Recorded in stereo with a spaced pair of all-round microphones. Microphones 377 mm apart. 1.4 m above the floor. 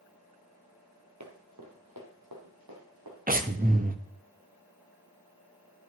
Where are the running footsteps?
50° right (ahead or behind), 2 m; by 3.2 s 70° right (ahead or behind), 4 m.